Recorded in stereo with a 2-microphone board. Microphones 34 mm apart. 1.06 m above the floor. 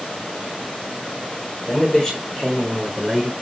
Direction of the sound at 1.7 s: 25° left (ahead or behind).